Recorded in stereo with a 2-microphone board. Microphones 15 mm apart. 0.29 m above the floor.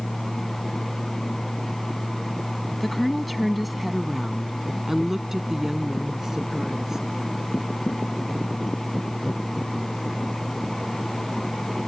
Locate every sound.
2.8 s a woman speaking: 5° left (ahead or behind); by 7.0 s 40° right (ahead or behind)